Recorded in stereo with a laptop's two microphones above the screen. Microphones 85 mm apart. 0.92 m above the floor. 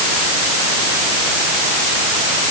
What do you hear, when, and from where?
Only background noise.